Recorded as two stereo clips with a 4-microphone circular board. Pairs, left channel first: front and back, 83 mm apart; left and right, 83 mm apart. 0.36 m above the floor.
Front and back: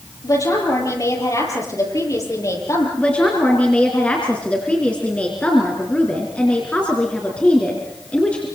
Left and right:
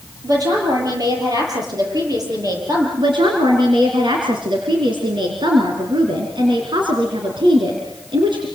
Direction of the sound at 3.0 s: 75° right.